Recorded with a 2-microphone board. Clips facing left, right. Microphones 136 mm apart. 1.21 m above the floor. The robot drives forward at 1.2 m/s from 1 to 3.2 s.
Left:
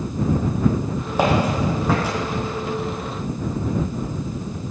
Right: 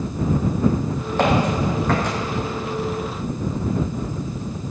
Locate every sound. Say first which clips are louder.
1.2 s footsteps: even; 10° left (ahead or behind), 4 m